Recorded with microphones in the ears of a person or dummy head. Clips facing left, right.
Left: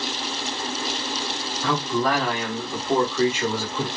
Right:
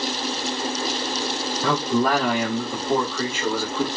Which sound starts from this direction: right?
A man speaking, at 1.6 s.